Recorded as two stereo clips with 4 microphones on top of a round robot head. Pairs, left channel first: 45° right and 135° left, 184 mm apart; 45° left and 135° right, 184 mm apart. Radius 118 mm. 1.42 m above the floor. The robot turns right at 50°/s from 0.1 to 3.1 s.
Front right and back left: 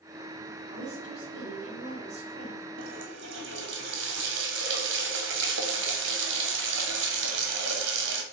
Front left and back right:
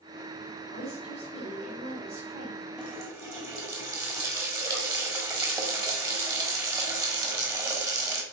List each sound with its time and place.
0.7 s a woman speaking: 95° left, 3.5 m; by 2.7 s 165° right, 3.5 m
2.8 s a running tap: 135° left, 1.0 m; by 8.2 s 155° left, 1.0 m